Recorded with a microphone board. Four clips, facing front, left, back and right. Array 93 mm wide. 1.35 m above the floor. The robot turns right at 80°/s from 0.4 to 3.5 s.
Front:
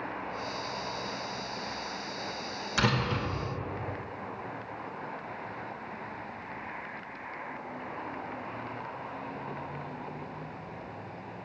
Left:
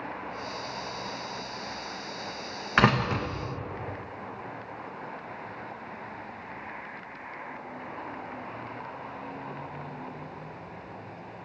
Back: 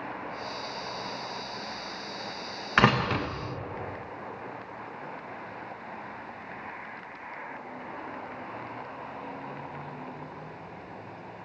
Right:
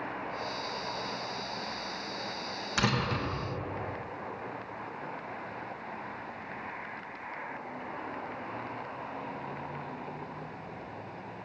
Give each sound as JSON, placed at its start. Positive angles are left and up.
{"t": 2.8, "sound": "a door slam", "azimuth_deg": 135, "distance_m": 1.1}